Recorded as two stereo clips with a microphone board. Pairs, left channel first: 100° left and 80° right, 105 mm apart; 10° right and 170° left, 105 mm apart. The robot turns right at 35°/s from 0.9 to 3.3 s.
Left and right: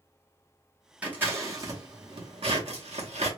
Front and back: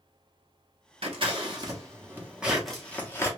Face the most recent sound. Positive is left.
turn(degrees=-80)